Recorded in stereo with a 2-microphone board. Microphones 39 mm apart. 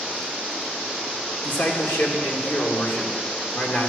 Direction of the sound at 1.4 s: 75° left (ahead or behind).